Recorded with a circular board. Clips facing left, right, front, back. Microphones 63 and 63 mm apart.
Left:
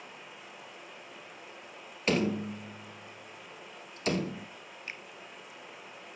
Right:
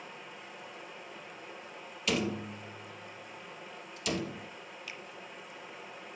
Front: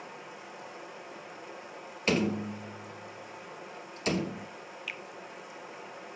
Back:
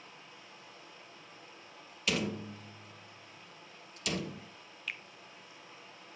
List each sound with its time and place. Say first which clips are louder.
0.0 s running water: right 1 dB, front 9 dB; 5° left, 3 m
2.1 s a door slam: left 4 dB, front 6 dB; 45° left, 2.5 m
4.9 s a finger snap: left 4 dB, even; 85° left, 1.1 m